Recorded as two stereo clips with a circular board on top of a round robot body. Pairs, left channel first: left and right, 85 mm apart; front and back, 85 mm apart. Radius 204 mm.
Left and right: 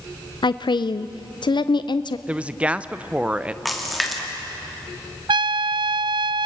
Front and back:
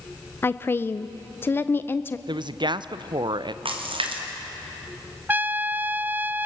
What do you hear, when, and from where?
0.4 s a woman speaking: 65° left, 0.6 m
2.3 s a woman speaking: 165° right, 0.9 m
3.6 s a splash: straight behind, 2.5 m
5.3 s a trumpet: 110° right, 0.5 m